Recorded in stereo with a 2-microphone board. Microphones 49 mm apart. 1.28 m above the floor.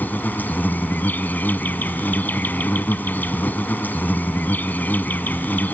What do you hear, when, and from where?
0.0 s an insect: 40° left (ahead or behind)